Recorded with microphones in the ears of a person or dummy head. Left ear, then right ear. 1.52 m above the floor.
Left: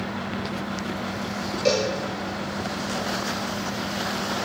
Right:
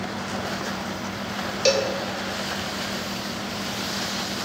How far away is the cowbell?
About 2.5 m.